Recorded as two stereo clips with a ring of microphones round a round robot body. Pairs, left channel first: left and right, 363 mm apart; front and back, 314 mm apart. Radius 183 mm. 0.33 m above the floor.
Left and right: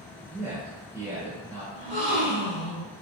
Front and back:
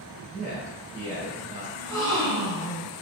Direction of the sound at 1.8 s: 155° left.